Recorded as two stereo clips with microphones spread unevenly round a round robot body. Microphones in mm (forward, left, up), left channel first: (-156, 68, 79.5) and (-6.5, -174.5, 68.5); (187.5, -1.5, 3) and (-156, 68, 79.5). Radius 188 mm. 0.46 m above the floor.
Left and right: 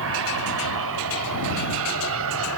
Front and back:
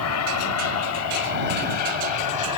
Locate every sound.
0.0 s an aircraft: 30° right; by 2.6 s 25° right